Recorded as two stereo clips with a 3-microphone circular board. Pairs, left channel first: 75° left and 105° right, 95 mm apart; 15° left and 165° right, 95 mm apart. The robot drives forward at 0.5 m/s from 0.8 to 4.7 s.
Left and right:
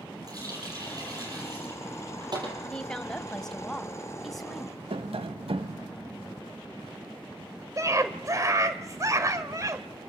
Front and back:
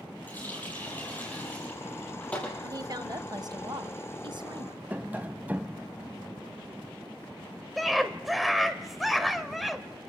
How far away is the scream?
About 1.7 m.